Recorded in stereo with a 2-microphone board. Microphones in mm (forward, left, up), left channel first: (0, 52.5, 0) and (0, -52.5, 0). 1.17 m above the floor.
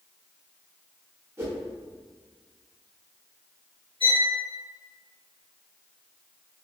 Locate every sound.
1.4 s a whoosh: 25° right (ahead or behind), 1.1 m
4.0 s a violin: 55° left (ahead or behind), 0.9 m